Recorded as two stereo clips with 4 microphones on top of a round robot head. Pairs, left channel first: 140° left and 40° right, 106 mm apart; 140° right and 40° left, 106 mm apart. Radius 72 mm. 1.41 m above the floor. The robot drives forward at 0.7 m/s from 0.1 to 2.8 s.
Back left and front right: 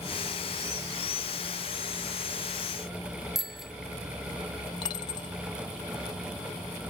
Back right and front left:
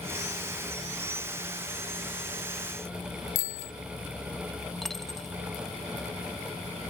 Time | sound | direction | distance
3.4 | a bicycle bell | 125° right | ?
4.8 | a dropped coin | 135° left | ?